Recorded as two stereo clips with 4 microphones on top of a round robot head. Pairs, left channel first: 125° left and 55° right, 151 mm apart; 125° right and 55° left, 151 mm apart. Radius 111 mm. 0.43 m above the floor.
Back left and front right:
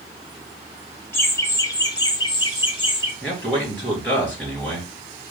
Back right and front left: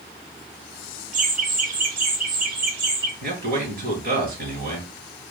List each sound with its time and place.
1.1 s laughter: 50° left, 1.1 m; by 3.1 s 70° left, 2 m
3.2 s a man speaking: 40° left, 3.5 m